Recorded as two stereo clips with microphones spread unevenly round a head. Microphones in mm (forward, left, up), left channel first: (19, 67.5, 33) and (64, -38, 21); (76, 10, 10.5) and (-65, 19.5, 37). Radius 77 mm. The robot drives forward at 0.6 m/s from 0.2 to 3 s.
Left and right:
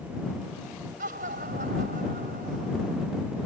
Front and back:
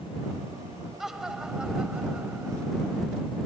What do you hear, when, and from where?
1.0 s laughter: 100° right; by 3.0 s 105° right